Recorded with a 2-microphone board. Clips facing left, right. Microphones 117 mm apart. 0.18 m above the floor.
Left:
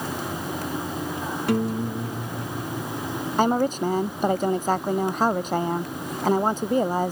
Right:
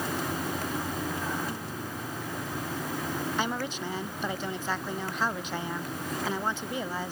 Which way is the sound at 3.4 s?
45° left (ahead or behind).